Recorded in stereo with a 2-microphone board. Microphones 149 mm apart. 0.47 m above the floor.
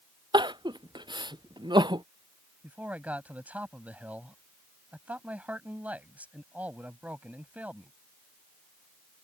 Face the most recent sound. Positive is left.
turn(degrees=-10)  # may be behind; listen again after turning